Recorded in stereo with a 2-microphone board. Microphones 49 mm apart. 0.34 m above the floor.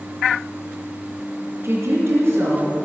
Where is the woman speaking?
60° right (ahead or behind), 4 m.